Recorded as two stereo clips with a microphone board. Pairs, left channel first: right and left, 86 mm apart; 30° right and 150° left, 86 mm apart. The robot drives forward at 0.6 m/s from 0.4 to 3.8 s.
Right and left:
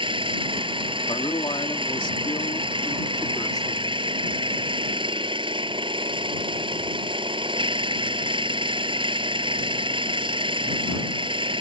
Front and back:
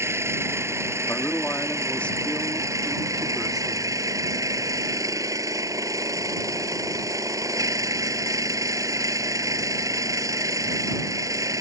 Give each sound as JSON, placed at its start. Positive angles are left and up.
{"t": 0.0, "sound": "an engine running", "azimuth_deg": 90}
{"t": 1.1, "sound": "a man speaking", "azimuth_deg": -90}